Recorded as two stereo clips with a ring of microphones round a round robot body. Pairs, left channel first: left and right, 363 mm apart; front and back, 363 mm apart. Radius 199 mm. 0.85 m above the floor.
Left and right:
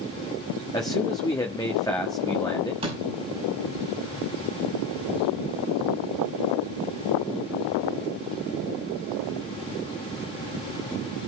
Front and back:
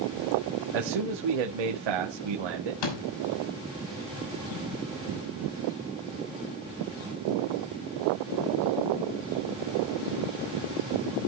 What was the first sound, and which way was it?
A man speaking, 170° left.